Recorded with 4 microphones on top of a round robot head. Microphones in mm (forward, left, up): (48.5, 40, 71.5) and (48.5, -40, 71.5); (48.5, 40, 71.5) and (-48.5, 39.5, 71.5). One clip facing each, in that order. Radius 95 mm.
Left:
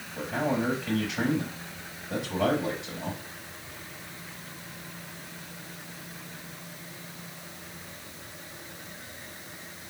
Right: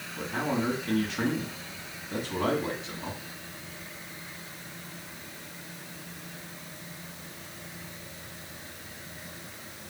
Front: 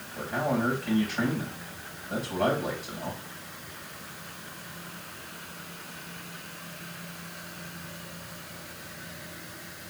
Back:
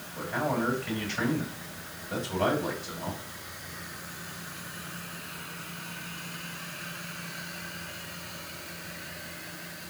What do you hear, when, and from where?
0.2 s a man speaking: 80° left, 4 m